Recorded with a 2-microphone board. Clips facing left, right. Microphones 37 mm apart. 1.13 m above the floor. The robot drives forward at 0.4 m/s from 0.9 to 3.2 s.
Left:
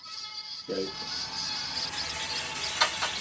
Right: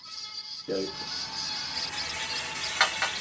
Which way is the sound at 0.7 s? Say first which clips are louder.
Right 2 dB; 65° right (ahead or behind).